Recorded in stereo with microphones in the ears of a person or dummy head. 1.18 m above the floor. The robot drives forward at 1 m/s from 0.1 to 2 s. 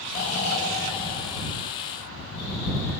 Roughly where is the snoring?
Left.